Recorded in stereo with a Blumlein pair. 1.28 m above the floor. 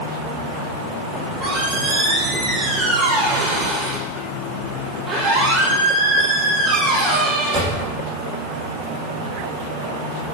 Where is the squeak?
25° right, 6 m.